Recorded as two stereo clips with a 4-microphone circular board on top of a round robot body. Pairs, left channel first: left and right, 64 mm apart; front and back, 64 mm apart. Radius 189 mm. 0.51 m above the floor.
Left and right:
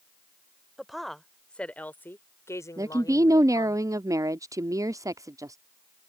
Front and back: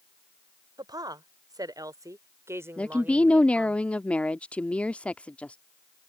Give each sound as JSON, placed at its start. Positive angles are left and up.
{"t": 0.8, "sound": "a woman speaking", "azimuth_deg": -175}
{"t": 2.8, "sound": "a woman speaking", "azimuth_deg": -70}